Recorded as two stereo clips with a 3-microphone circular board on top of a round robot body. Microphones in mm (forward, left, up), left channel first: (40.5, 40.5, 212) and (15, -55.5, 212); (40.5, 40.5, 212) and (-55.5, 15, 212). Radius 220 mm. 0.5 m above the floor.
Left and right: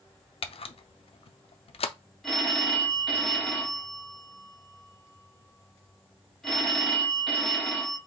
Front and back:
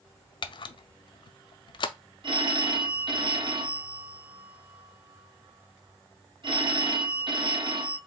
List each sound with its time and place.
0.4 s a camera shutter: 55° left, 0.6 m
2.2 s a phone ringing: 160° left, 1.2 m